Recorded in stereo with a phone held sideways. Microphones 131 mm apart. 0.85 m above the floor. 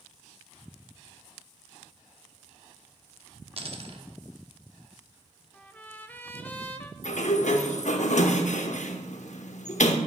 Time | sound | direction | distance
3.6 | a dropped coin | 50° right (ahead or behind) | 0.9 m
5.5 | a trumpet | 15° left (ahead or behind) | 0.6 m
7.0 | a sliding door | 70° left (ahead or behind) | 0.7 m